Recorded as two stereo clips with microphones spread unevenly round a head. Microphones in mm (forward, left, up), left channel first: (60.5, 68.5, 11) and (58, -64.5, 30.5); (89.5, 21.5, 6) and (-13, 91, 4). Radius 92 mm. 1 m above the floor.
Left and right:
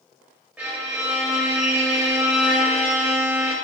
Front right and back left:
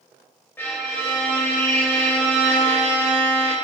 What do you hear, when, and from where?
0.6 s a violin: 65° right, 0.8 m